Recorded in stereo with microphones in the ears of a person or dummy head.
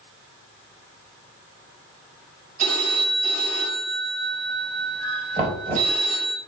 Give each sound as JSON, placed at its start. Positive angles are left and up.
{"t": 2.6, "sound": "a phone ringing", "side_deg": -50, "distance_m": 5.0}
{"t": 5.4, "sound": "knocking", "side_deg": -30, "distance_m": 3.0}